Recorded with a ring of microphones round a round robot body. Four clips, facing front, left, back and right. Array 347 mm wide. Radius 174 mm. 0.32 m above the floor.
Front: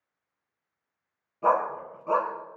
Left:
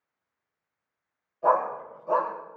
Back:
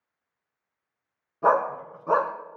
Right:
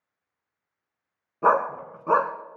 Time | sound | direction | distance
1.4 | a dog barking | 105° right | 1.7 m